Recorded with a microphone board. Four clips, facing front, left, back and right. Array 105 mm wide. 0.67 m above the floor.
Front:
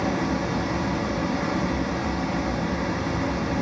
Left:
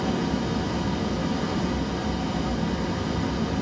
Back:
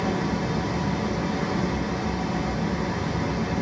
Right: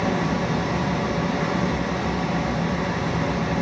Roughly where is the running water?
Right.